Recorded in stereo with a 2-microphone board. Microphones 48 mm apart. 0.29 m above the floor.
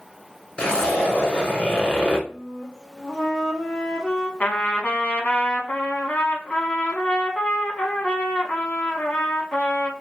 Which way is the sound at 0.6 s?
25° left (ahead or behind).